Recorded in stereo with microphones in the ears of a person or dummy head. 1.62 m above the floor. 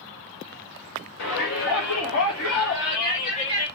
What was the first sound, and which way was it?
A shout, 60° left (ahead or behind).